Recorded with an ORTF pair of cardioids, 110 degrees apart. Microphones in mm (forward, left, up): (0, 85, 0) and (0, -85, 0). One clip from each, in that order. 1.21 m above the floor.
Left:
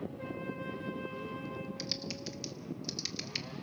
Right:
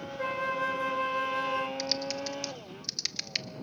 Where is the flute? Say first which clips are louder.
Right 16 dB; 55° right, 0.6 m.